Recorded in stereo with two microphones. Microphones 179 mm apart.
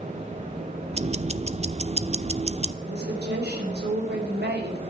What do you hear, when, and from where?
0.9 s ticking: 40° right (ahead or behind), 0.7 m
2.8 s a woman speaking: 75° right (ahead or behind), 4.5 m